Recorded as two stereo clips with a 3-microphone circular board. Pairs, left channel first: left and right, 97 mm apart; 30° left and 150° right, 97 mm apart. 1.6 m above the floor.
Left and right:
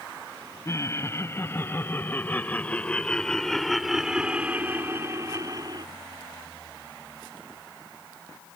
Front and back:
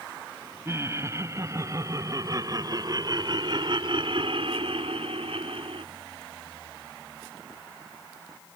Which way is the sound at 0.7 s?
150° left.